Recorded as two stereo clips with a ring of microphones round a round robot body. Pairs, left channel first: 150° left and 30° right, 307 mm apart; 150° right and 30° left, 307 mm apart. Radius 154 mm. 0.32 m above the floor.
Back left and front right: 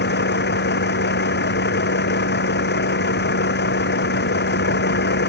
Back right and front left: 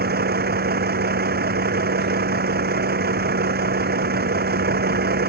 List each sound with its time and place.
0.0 s a vehicle: 90° left